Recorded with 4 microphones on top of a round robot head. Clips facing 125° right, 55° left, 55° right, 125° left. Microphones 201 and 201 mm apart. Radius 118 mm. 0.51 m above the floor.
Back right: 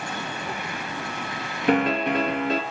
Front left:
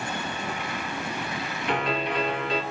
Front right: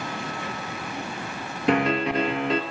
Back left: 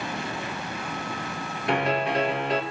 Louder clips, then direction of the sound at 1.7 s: Back right 7 dB, front right 3 dB; 75° right.